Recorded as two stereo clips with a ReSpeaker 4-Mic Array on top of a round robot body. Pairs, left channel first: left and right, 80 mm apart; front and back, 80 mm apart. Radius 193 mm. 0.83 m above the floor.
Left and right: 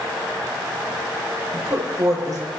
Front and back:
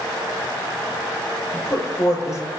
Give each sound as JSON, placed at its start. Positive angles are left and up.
{"t": 1.5, "sound": "a woman speaking", "azimuth_deg": -45, "distance_m": 6.0}